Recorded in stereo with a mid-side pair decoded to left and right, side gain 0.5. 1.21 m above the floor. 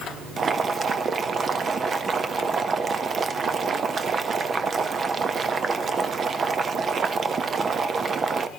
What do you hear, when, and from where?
0.4 s boiling: 40° right, 0.8 m